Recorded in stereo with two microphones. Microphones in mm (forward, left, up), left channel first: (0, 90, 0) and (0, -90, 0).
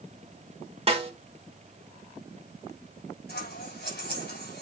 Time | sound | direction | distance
0.9 | a snare drum | 35° right (ahead or behind) | 1.5 m
3.3 | scissors | 70° left (ahead or behind) | 5.5 m